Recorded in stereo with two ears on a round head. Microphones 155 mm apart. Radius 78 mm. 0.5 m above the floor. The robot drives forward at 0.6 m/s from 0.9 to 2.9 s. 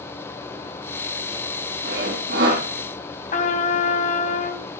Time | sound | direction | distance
1.8 | sawing | 60° right (ahead or behind) | 7 m
3.3 | a trumpet | 45° left (ahead or behind) | 2.5 m